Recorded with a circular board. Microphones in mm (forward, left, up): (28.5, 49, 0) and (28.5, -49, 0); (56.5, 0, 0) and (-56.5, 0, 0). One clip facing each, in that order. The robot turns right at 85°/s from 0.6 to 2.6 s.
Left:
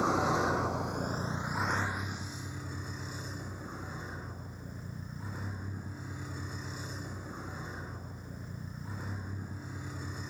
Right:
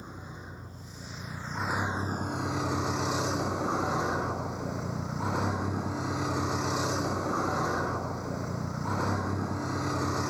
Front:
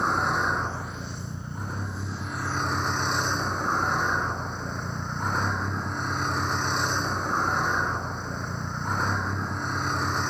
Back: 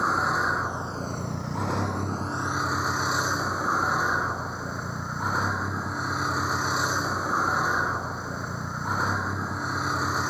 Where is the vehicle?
95° left; by 10.3 s 95° right.